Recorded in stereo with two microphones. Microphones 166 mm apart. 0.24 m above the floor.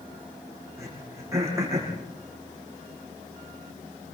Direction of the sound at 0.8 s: 20° right (ahead or behind).